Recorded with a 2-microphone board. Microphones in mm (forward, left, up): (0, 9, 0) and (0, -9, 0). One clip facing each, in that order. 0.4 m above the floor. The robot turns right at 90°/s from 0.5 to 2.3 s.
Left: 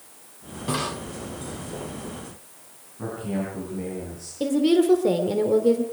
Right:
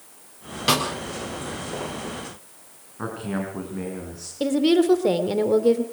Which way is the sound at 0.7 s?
60° right (ahead or behind).